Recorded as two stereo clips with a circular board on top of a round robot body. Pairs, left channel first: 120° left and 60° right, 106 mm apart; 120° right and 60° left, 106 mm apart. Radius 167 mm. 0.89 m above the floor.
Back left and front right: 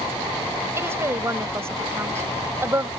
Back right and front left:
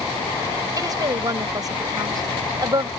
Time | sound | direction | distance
0.8 | a woman speaking | 5° left | ?